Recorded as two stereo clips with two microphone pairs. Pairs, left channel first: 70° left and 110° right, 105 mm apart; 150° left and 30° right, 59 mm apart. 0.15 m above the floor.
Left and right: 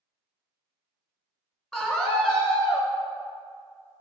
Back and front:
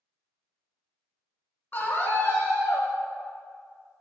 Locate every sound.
1.7 s a scream: 155° left, 1.5 m; by 2.9 s 150° left, 2 m